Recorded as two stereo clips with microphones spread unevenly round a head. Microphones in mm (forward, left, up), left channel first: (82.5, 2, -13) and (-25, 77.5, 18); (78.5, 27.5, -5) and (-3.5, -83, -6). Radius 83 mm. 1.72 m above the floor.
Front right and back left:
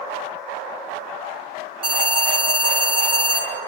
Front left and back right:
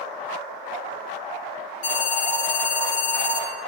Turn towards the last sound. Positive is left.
turn(degrees=95)